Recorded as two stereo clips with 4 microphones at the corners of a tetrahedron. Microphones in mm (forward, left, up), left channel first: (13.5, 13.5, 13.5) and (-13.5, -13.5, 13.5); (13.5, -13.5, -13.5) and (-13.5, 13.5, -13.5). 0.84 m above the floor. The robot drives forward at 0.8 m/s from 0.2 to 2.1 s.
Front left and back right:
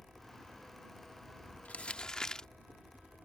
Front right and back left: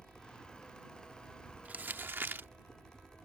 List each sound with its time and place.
0.0 s a helicopter: 115° right
1.6 s crumpling: 90° left; by 2.5 s 115° left